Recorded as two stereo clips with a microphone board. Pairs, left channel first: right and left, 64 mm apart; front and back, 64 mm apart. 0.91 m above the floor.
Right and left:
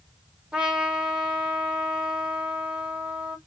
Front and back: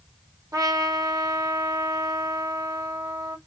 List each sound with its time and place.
0.5 s a trumpet: 160° left, 1.5 m